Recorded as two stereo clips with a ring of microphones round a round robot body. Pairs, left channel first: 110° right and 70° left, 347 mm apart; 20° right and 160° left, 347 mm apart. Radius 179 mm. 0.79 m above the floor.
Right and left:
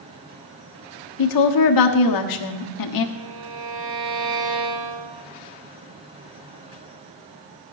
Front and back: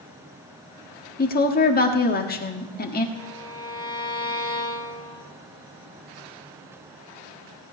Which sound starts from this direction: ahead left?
A violin, at 3.1 s.